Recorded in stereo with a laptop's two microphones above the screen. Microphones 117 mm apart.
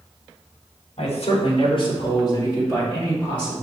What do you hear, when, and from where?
1.0 s a man speaking: 70° left (ahead or behind), 3 m; by 3.5 s 10° left (ahead or behind), 4.5 m